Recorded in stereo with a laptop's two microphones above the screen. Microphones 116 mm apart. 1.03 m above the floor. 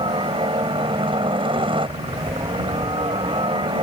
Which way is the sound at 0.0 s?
50° right (ahead or behind).